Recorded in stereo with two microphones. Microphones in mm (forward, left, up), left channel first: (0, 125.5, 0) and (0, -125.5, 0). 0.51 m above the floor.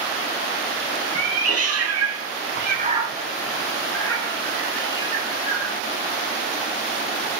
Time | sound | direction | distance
1.1 | a cat meowing | 65° right (ahead or behind) | 0.9 m